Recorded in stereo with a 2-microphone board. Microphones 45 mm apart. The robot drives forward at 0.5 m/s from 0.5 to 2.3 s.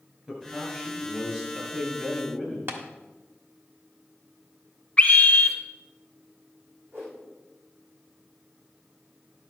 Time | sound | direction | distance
0.3 | a man speaking | 20° right (ahead or behind) | 6 m
2.7 | tapping | 60° right (ahead or behind) | 1.3 m
5.0 | a scream | 25° left (ahead or behind) | 0.9 m
6.9 | a whoosh | 65° right (ahead or behind) | 5 m